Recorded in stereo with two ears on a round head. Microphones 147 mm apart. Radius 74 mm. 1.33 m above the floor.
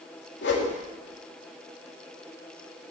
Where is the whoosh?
80° left, 3 m.